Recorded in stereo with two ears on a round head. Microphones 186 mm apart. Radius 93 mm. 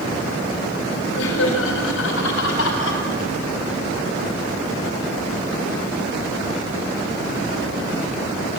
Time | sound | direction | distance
1.1 | laughter | 85° left | 6 m